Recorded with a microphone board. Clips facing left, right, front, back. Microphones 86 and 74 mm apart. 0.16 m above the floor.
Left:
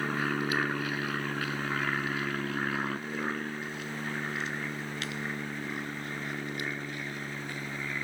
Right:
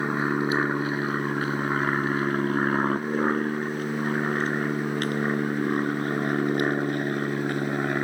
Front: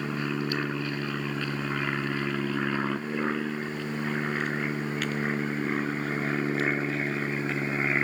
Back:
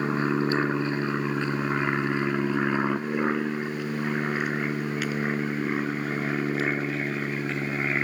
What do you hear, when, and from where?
0.0 s an aircraft: 140° right; by 8.0 s 85° right